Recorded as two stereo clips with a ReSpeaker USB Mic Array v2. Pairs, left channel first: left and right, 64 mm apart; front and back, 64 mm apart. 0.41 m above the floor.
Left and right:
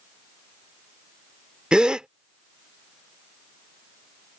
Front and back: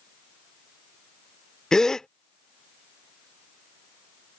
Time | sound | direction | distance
1.7 | a gasp | 55° right | ?